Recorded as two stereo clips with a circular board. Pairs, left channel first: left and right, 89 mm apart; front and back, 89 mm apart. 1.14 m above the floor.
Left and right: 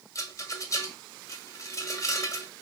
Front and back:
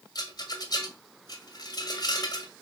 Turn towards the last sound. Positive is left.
turn(degrees=40)